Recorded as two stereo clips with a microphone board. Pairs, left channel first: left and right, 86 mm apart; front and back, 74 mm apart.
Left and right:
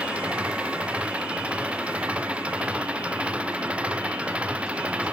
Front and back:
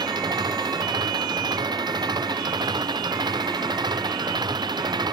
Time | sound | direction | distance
0.0 | an engine running | 165° right | ?